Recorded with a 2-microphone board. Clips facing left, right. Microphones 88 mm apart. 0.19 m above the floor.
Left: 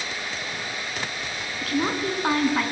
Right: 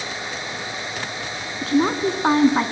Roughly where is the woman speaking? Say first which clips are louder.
Right 6 dB; right.